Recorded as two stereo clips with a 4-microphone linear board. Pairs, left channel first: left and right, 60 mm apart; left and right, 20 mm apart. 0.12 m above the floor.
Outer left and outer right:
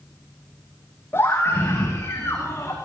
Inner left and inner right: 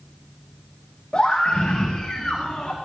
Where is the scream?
40° left (ahead or behind), 10 m; by 2.8 s 45° left (ahead or behind), 10.5 m.